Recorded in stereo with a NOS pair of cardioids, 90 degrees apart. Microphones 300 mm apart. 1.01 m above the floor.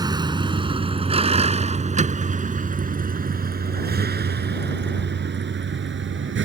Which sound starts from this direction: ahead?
A vehicle, at 0.0 s.